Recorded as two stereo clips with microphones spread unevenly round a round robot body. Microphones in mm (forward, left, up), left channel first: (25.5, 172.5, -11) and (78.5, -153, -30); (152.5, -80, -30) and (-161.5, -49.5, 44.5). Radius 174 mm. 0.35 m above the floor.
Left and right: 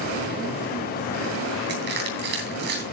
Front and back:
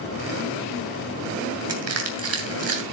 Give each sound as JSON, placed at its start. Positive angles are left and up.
{"t": 1.7, "sound": "crushing", "azimuth_deg": -140, "distance_m": 3.0}